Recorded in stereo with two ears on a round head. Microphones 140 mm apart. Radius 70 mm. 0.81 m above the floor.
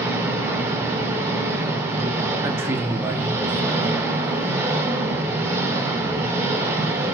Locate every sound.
0.0 s an engine running: 15° right (ahead or behind), 1.3 m
2.4 s a man speaking: 15° right (ahead or behind), 1.5 m